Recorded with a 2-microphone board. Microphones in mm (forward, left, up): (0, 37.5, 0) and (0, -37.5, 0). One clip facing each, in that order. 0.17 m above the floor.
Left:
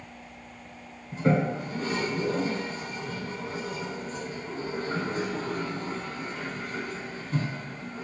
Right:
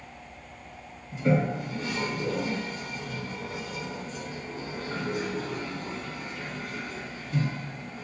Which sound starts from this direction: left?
A toilet flushing, at 1.1 s.